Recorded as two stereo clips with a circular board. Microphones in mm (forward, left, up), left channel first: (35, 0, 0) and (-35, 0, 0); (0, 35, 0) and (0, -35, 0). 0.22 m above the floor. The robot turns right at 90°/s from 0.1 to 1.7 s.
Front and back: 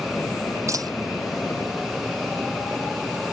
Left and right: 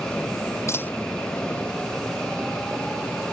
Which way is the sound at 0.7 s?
140° left.